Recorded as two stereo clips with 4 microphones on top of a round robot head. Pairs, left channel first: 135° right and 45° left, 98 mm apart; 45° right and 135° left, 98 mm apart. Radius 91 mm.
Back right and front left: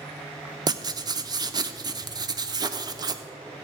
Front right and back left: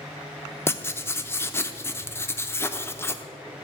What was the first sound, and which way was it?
Writing, 15° left.